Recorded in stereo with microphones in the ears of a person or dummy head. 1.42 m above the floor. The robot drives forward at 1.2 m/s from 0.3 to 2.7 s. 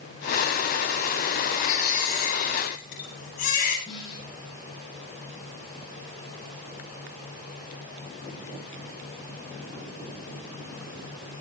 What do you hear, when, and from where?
1.5 s a baby crying: 45° left (ahead or behind), 9.5 m; by 3.8 s 50° left (ahead or behind), 8.5 m
3.9 s a snare drum: 25° left (ahead or behind), 10 m